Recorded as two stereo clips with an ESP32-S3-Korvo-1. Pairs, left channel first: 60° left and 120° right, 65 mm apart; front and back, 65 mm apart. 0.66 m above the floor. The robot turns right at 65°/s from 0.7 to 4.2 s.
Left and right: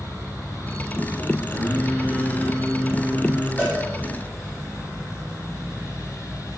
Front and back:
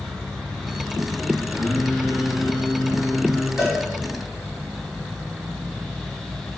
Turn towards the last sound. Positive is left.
turn(degrees=155)